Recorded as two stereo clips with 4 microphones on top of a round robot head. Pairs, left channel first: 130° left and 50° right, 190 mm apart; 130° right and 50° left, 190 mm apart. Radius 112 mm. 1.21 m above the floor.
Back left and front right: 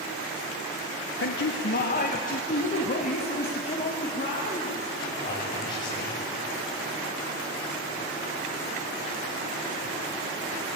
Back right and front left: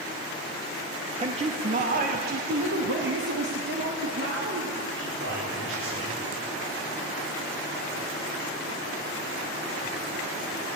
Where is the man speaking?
110° left, 1.3 m; by 6.2 s 60° left, 5.5 m.